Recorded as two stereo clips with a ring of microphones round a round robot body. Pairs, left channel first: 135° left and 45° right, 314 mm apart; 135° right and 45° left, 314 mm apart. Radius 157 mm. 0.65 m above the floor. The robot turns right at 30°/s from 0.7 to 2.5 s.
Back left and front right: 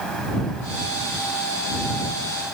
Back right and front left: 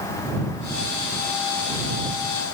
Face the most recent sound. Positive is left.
No sound to turn to.